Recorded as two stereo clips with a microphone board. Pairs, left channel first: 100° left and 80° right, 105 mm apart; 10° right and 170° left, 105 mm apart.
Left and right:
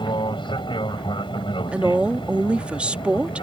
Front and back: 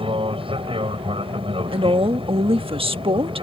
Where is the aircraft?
140° left; by 3.4 s 135° left.